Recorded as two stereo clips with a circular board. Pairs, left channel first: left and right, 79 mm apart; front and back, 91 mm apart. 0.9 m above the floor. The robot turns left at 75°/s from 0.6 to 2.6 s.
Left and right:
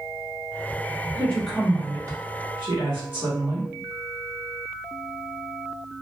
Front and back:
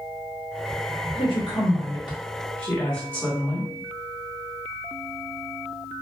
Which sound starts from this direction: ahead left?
A woman speaking, at 1.1 s.